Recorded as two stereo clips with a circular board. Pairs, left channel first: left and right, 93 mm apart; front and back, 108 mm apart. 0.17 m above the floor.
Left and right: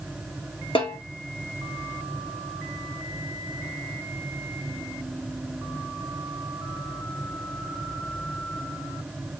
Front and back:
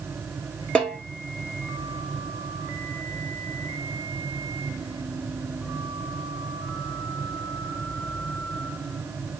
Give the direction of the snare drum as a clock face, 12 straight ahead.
9 o'clock.